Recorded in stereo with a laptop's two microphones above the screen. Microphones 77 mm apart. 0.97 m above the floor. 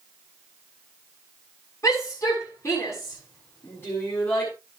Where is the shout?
45° left (ahead or behind), 6.5 m; by 4.5 s 25° left (ahead or behind), 6.5 m.